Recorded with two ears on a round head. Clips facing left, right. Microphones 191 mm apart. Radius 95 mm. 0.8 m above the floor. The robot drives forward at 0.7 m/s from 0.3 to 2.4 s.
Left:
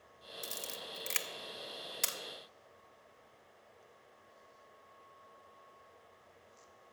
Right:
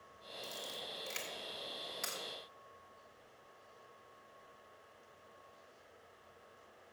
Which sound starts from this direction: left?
A camera shutter, at 0.4 s.